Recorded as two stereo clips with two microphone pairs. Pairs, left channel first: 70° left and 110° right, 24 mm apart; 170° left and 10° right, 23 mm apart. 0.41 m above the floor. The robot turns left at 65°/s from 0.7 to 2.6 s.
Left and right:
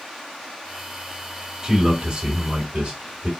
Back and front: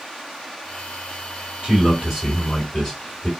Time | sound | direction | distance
1.6 | a man speaking | 50° right | 2.5 m